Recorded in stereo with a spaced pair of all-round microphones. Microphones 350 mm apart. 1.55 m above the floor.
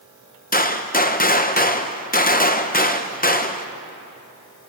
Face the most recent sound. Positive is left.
turn(degrees=25)  # may be behind; listen again after turning